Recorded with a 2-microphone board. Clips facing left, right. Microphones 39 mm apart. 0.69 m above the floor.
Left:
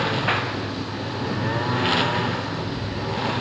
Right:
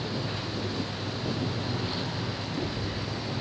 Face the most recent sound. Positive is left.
turn(degrees=70)  # may be behind; listen again after turning